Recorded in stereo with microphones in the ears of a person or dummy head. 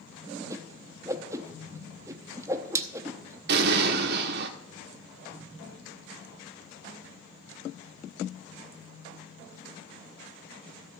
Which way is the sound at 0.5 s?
10° right (ahead or behind).